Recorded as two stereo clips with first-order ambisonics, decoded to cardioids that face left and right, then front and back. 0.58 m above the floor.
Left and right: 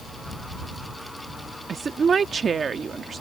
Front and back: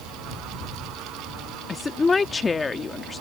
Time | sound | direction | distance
1.7 | a woman speaking | 55° right | ?